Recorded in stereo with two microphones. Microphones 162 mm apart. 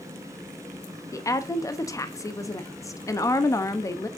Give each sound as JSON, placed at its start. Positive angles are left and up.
{"t": 1.1, "sound": "a woman speaking", "side_deg": 20, "distance_m": 0.8}